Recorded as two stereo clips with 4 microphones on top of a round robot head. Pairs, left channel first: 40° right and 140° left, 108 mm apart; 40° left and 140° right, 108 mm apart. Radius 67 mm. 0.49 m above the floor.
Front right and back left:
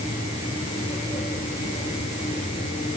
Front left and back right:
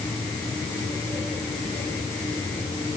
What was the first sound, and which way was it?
Only background noise.